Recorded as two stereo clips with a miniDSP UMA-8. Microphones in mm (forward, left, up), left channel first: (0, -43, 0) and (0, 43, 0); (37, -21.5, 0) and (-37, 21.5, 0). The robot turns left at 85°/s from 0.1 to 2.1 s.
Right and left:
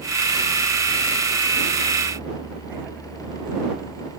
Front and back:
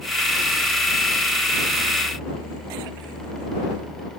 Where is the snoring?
No snoring in this recording.